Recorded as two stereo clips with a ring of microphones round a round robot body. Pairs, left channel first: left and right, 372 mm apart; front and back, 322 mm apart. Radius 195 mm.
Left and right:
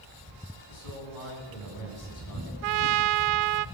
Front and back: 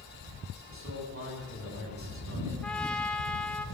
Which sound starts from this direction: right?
A trumpet, at 2.6 s.